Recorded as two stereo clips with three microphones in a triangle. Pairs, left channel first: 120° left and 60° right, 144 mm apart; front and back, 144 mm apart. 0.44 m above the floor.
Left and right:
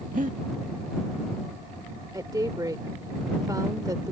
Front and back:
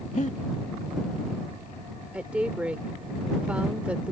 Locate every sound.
0.1 s breathing: 35° right
2.1 s a woman speaking: 105° right